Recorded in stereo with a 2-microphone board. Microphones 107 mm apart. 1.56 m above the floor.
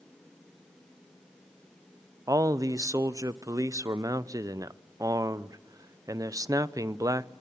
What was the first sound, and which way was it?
A man speaking, 35° right (ahead or behind).